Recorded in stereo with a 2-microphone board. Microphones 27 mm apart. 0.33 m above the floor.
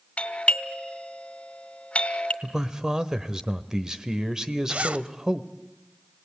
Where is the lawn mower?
No lawn mower in this recording.